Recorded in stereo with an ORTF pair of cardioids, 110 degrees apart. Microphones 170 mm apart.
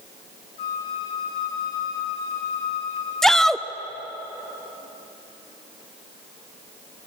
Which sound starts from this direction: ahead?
A shout, at 3.2 s.